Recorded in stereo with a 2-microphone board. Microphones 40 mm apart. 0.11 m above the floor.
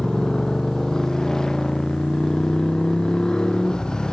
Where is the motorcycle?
10° left (ahead or behind); by 4.1 s 20° left (ahead or behind).